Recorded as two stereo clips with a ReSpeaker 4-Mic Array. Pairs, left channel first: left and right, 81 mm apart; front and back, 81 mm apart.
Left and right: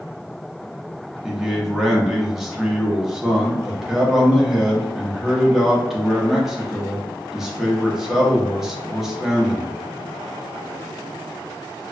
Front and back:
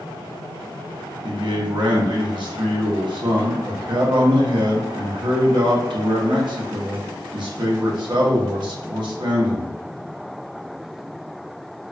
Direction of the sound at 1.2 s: 175° right.